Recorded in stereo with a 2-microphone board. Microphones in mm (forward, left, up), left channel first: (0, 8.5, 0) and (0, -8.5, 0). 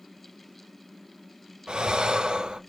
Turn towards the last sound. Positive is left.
turn(degrees=-70)  # may be behind; listen again after turning